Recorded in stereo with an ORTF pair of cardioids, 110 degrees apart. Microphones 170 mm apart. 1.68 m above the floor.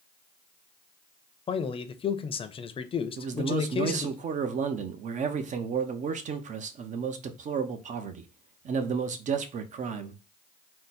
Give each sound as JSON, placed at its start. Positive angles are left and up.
{"t": 1.5, "sound": "a man speaking", "azimuth_deg": 35, "distance_m": 0.7}
{"t": 3.2, "sound": "a man speaking", "azimuth_deg": -45, "distance_m": 0.8}